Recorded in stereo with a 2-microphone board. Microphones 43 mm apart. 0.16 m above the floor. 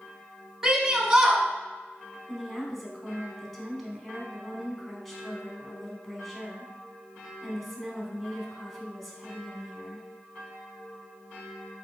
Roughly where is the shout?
Centre.